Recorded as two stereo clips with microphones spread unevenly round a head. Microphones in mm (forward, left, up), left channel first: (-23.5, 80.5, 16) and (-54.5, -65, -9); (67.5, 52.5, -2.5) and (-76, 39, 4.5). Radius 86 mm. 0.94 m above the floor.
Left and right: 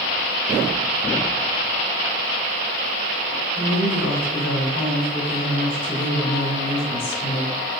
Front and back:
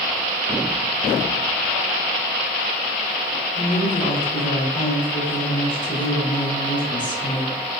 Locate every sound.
3.5 s a woman speaking: 65° left, 2 m